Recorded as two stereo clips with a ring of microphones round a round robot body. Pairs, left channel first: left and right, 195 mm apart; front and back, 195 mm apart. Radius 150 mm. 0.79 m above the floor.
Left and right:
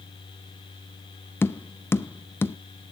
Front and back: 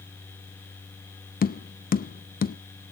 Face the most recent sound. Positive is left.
turn(degrees=15)